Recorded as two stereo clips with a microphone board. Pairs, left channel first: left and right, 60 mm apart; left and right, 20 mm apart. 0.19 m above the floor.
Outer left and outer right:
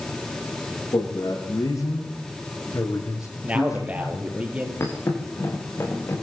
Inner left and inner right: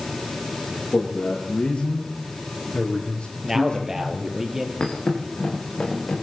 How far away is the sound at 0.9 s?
About 8 m.